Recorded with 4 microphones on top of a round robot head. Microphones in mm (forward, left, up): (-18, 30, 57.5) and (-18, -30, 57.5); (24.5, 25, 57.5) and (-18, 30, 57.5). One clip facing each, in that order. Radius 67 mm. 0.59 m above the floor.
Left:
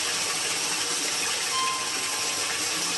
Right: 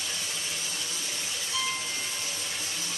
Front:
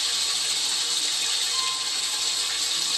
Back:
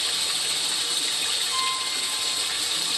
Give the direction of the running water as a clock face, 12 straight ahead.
9 o'clock.